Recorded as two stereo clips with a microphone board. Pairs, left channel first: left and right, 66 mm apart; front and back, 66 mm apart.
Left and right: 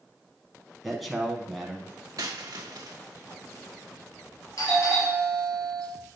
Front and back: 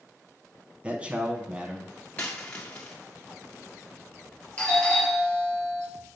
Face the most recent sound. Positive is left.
turn(degrees=70)